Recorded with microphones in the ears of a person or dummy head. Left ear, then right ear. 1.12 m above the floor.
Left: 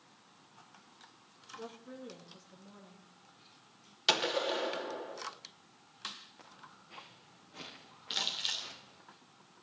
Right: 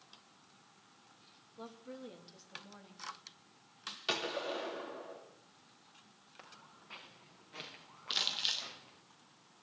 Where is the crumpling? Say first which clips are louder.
Even; 15° right (ahead or behind), 2.5 m.